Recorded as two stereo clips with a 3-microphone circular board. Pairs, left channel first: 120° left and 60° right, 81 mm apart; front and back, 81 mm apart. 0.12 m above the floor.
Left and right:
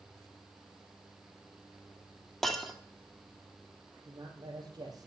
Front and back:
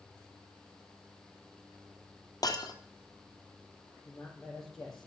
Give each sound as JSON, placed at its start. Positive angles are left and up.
{"t": 2.4, "sound": "breaking glass", "azimuth_deg": 35, "distance_m": 1.6}
{"t": 4.0, "sound": "a man speaking", "azimuth_deg": -90, "distance_m": 4.5}